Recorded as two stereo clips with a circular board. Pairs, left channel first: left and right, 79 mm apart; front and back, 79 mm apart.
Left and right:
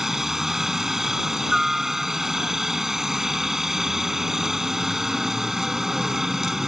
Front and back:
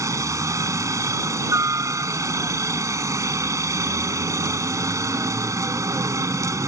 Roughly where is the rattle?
No rattle in this recording.